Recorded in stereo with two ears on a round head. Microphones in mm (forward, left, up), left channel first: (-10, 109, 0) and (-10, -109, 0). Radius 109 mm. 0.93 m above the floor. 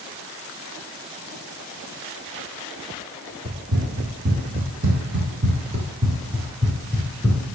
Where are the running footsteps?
45° right (ahead or behind), 1.9 m; by 7.5 s 5° left (ahead or behind), 1.6 m.